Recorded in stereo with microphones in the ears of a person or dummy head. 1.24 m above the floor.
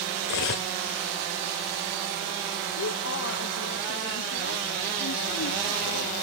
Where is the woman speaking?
65° left (ahead or behind), 1.1 m.